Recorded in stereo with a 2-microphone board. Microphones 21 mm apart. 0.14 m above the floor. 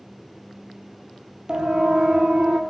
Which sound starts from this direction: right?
A siren, at 1.5 s.